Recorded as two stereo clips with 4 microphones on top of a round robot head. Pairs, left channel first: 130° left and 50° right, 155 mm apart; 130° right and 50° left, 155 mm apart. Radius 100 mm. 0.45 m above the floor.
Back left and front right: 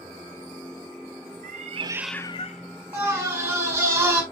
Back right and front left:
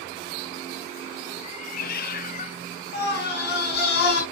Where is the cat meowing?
80° right, 0.9 m; by 3.8 s 145° left, 1.9 m.